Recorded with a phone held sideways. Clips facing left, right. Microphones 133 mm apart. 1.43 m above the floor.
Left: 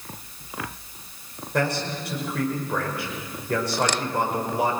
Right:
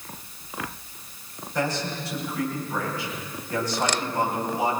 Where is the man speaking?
65° left (ahead or behind), 6 m.